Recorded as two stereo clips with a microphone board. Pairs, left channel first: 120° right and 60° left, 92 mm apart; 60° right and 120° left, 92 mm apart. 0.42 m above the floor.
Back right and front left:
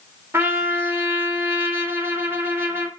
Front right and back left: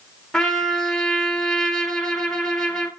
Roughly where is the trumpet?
Ahead.